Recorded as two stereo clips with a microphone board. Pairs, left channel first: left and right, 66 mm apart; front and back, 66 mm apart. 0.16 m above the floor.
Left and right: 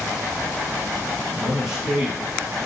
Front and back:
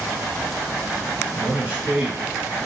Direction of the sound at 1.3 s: 160° right.